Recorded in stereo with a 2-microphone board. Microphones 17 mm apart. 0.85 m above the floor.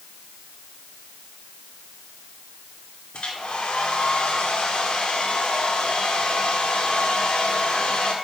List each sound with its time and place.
3.1 s a hair dryer: 80° left, 2 m